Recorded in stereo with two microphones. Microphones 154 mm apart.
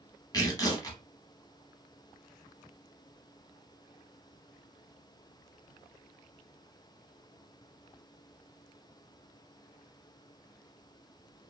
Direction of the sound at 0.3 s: 25° left (ahead or behind).